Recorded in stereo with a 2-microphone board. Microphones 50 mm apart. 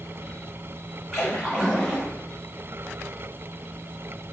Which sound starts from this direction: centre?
A splash, at 1.1 s.